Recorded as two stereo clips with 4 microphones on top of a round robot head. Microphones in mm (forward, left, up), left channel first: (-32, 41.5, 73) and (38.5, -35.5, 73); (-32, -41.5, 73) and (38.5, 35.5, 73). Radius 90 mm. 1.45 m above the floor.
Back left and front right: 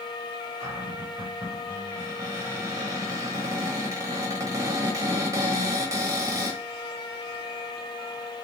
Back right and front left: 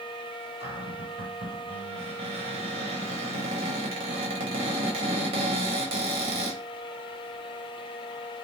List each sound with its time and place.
0.6 s a cupboard door: 15° left, 1.1 m